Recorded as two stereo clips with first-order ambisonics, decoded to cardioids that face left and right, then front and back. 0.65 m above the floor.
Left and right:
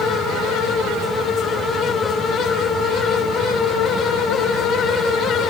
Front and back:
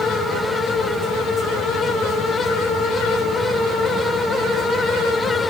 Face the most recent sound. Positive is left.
No sound to turn to.